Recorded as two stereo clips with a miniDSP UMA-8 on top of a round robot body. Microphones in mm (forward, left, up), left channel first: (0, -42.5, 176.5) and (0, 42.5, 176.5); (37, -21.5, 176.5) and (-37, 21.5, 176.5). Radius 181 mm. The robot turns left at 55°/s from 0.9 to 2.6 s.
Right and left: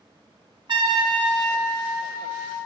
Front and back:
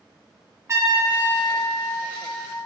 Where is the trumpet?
100° left, 0.8 m; by 2.6 s 5° left, 0.8 m.